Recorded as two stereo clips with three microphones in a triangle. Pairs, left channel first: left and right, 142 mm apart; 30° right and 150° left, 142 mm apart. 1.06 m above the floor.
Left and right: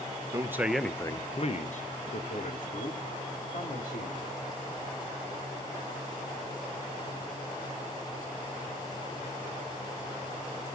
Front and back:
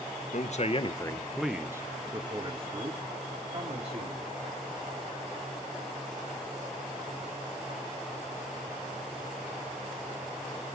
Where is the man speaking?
25° right, 1.1 m; by 4.3 s 110° left, 3.5 m.